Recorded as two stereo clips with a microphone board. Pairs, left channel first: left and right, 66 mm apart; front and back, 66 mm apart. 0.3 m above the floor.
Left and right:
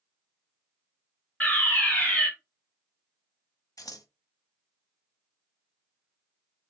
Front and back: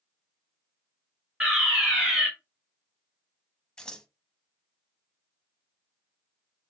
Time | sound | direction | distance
1.4 | a fire alarm | 110° left | 2.0 m
3.8 | scissors | 75° left | 0.7 m